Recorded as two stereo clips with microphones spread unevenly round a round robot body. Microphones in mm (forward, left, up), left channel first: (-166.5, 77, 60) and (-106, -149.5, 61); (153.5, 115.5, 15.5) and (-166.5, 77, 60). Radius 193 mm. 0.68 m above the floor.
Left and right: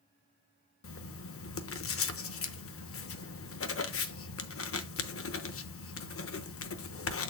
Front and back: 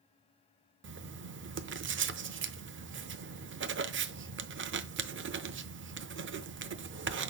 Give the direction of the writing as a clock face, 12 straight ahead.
8 o'clock.